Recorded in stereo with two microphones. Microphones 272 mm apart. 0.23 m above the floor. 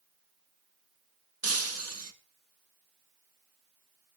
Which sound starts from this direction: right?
Breaking glass, at 1.4 s.